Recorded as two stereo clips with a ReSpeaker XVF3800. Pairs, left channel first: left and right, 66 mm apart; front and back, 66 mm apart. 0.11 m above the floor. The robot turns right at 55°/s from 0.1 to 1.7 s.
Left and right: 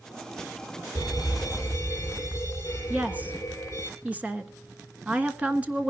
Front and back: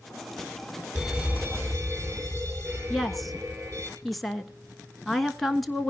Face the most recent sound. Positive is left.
turn(degrees=-85)